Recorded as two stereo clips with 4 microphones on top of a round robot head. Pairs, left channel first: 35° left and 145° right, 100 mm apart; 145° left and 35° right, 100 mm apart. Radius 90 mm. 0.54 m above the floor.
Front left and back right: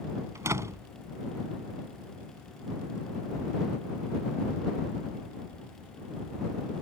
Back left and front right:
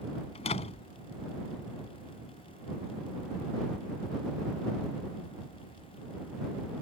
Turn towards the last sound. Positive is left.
turn(degrees=155)